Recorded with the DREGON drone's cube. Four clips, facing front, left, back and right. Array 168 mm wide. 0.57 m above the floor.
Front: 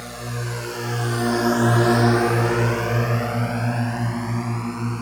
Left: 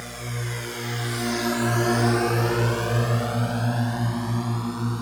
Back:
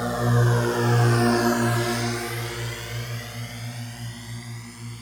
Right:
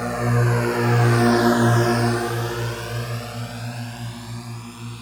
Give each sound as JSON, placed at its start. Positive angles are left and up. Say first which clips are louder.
{"t": 0.0, "sound": "a drone", "louder": "right 12 dB, back 8 dB", "azimuth_deg": -130}